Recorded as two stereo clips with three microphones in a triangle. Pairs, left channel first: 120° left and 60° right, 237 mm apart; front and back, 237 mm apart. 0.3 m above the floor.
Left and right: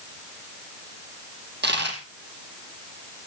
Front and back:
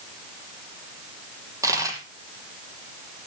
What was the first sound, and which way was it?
A dropped coin, 105° right.